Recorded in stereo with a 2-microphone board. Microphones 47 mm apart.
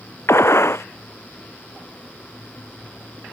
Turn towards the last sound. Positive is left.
turn(degrees=60)  # may be behind; listen again after turning